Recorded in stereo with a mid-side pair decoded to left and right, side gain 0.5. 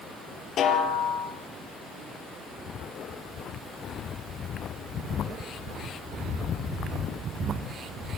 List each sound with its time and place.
0.6 s a snare drum: 50° left, 4.5 m